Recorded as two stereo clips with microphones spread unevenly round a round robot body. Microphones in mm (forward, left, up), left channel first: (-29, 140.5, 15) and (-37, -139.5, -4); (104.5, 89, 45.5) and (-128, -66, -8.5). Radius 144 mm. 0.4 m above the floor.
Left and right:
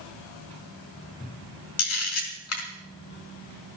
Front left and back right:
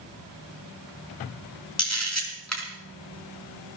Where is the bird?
I don't hear a bird.